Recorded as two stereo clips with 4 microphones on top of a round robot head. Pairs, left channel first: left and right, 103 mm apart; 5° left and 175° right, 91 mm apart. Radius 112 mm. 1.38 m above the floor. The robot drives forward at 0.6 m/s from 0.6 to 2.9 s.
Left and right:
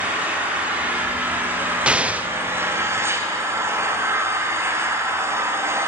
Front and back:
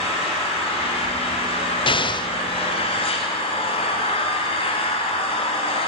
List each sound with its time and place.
0.0 s an engine running: 15° right, 3.5 m; by 5.9 s 25° right, 2 m
1.9 s an explosion: 10° right, 0.9 m; by 2.3 s 15° right, 0.7 m